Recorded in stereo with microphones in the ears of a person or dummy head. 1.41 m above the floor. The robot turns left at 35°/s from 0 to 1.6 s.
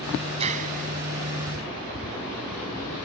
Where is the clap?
35° right (ahead or behind); by 0.9 s 55° right (ahead or behind).